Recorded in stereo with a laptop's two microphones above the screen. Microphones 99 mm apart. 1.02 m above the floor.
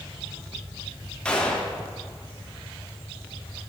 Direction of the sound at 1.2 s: 10° left (ahead or behind).